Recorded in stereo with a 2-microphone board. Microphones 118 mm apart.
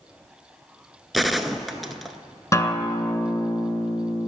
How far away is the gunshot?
About 0.5 m.